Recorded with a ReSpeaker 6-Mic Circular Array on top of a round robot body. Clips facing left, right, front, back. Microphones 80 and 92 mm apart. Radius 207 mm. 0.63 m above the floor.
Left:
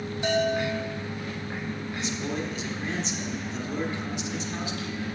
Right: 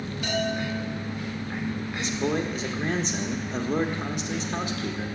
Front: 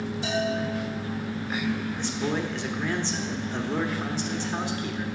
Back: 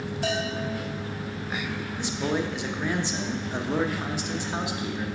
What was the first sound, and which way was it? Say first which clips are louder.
A bell: left 3 dB, front 2 dB; 150° left.